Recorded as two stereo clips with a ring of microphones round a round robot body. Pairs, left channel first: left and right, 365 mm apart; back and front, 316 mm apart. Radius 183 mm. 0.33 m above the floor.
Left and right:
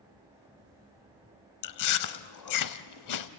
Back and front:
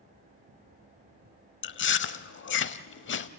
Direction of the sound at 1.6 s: 125° left.